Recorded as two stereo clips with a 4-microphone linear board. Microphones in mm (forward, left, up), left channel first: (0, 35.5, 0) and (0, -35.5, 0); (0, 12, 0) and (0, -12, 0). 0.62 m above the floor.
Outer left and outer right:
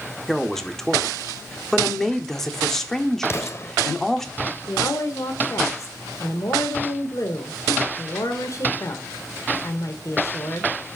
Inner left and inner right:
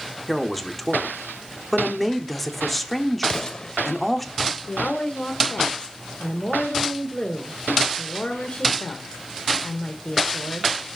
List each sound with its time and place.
0.3 s a man speaking: 5° left (ahead or behind), 1.1 m
3.2 s an explosion: 40° left (ahead or behind), 1.2 m
4.7 s a woman speaking: 55° left (ahead or behind), 1.6 m